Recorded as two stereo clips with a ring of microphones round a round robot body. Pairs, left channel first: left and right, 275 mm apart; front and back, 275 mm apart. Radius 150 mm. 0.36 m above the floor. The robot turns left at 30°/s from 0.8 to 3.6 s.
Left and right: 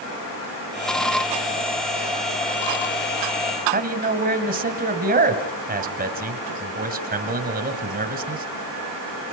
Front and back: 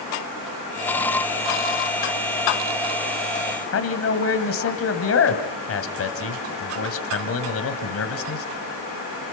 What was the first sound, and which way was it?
A man speaking, 35° right.